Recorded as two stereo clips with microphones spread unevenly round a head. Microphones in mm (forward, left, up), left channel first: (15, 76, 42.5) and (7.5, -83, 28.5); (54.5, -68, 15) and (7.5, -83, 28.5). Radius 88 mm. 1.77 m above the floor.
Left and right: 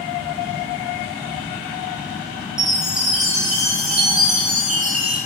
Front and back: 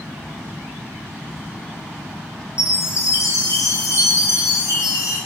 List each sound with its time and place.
2.6 s a chime: 5° right, 5 m